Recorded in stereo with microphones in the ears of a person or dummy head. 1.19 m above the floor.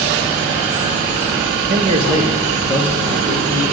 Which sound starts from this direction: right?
A man speaking, at 1.7 s.